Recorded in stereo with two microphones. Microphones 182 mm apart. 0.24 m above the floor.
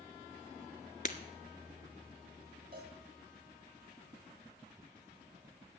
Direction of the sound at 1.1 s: 45° left (ahead or behind).